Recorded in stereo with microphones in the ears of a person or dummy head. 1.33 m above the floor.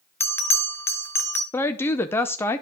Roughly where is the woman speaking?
Centre.